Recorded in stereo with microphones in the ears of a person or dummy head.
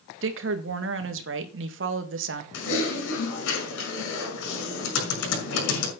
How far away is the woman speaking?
About 1.9 m.